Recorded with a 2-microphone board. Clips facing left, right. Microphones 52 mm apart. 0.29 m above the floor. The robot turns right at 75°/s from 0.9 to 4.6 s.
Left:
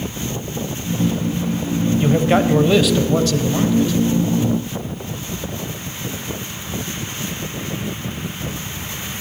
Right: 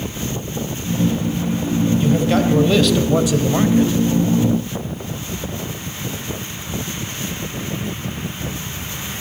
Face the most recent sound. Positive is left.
turn(degrees=-55)